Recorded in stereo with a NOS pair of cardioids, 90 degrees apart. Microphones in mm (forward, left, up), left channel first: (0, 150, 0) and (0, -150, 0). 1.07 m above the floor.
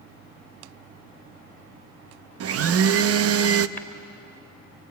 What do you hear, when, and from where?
2.4 s a blender: 50° right, 0.9 m
3.8 s tapping: 5° left, 3.5 m